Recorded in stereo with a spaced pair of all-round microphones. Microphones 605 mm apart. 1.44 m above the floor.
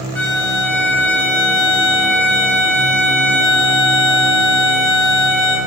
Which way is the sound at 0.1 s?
5° left (ahead or behind).